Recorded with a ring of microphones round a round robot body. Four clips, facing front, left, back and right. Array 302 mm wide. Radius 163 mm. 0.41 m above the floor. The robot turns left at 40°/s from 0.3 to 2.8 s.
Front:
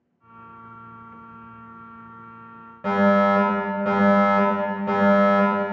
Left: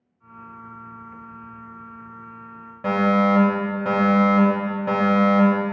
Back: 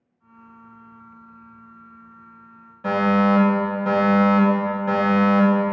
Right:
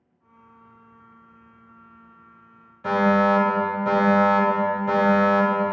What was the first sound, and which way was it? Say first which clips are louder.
A fire alarm: even, front 1 dB; 65° left.